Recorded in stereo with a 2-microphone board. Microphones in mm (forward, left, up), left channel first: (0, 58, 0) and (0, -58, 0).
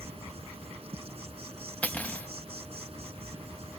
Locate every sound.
0.0 s an insect: 55° right (ahead or behind)
1.8 s cutlery clinking: 15° left (ahead or behind)